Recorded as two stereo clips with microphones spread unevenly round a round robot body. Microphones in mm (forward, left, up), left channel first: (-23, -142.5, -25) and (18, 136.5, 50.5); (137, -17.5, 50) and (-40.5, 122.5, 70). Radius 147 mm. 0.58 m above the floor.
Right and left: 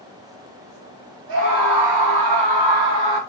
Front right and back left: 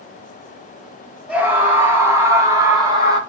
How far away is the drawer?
I don't hear a drawer.